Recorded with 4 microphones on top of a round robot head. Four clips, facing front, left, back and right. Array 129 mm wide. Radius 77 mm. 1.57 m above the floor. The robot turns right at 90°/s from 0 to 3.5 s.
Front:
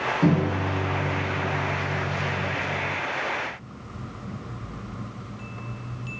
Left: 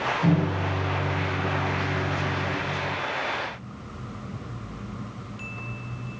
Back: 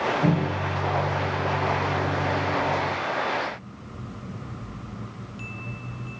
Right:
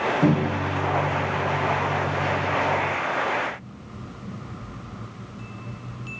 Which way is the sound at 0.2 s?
50° right.